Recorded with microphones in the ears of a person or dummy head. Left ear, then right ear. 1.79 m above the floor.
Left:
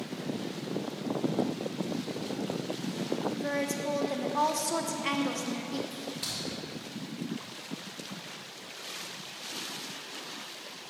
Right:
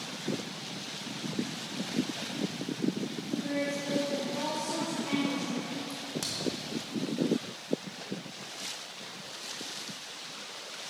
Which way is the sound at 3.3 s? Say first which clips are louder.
Left 1 dB; 45° left (ahead or behind).